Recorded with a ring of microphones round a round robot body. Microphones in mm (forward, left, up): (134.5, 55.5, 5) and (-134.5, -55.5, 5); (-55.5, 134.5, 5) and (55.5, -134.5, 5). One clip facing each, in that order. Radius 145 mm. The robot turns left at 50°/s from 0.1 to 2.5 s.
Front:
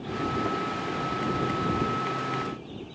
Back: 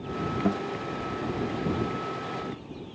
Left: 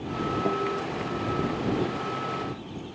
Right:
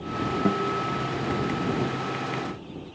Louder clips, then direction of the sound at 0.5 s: Back 3 dB, right 3 dB; 125° right.